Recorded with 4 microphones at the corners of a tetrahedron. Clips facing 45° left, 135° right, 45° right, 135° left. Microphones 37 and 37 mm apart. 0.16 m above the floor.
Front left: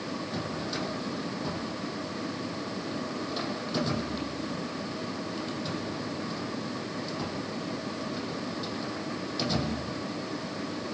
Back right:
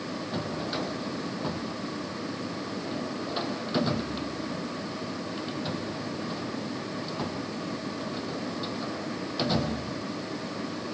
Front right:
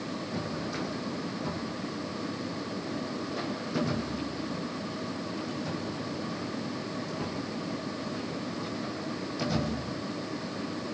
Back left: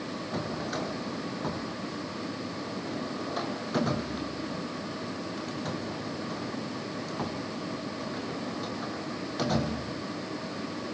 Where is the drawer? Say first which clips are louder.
Back right 3 dB, back left 3 dB; 165° left, 3.5 m.